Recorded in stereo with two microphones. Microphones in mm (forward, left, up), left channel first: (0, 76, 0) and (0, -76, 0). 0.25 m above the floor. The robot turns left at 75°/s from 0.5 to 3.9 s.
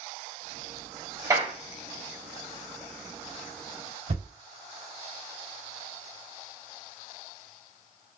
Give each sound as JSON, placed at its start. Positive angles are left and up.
{"t": 1.3, "sound": "a clap", "side_deg": -25, "distance_m": 0.9}
{"t": 4.1, "sound": "a thud", "side_deg": -60, "distance_m": 2.0}